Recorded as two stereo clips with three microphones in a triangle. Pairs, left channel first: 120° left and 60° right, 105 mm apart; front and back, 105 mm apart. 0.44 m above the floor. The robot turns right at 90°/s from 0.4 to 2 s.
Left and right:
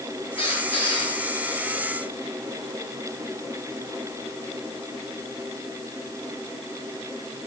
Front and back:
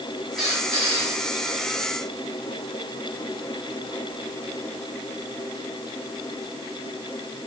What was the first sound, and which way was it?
A squeak, 95° left.